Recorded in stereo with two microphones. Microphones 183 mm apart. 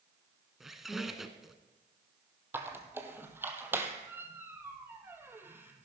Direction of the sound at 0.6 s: Centre (ahead or behind).